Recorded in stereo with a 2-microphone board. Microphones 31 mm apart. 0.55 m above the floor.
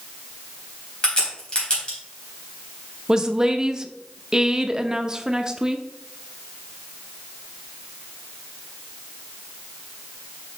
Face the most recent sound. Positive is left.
turn(degrees=-20)  # may be behind; listen again after turning